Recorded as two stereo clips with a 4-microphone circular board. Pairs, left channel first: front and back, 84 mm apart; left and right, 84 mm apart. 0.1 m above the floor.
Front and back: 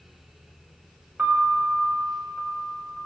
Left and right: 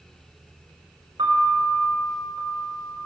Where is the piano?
110° right, 4.5 m.